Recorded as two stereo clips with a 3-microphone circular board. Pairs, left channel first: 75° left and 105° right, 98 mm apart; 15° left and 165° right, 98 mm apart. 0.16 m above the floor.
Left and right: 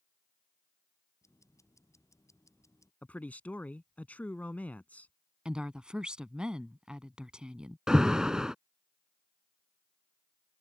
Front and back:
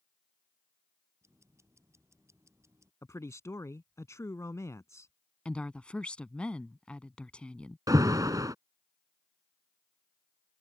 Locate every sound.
1.2 s ticking: 130° left
3.0 s a man speaking: 15° left
5.5 s a woman speaking: 45° right
7.9 s an alarm: 175° left